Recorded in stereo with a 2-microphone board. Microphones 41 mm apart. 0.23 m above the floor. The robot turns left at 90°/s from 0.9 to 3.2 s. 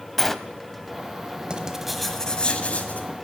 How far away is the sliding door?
About 0.5 m.